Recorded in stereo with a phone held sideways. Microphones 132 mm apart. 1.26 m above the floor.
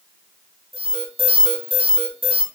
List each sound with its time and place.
0.7 s an alarm: 50° right (ahead or behind), 3.5 m